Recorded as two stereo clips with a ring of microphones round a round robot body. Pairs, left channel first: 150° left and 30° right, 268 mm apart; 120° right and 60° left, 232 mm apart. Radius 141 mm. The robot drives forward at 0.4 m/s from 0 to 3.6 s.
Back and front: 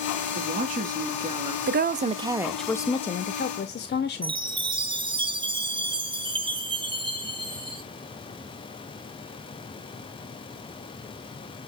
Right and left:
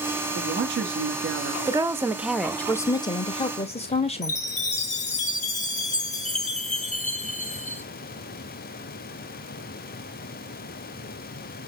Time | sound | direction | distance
0.3 | a woman speaking | 20° left | 1.3 m
1.7 | a woman speaking | 5° right | 0.6 m
4.2 | a chime | 90° right | 1.2 m